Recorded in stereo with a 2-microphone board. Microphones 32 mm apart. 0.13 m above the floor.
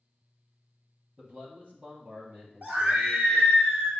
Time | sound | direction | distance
1.2 | a man speaking | 50° right (ahead or behind) | 4.5 m
2.6 | a scream | 60° right (ahead or behind) | 2.5 m